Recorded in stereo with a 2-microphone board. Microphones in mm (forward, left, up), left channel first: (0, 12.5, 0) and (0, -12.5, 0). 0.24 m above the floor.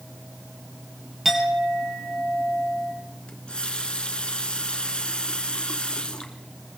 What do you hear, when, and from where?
1.2 s a clink: 5° right (ahead or behind), 3.5 m
3.3 s a running tap: 40° left (ahead or behind), 1.7 m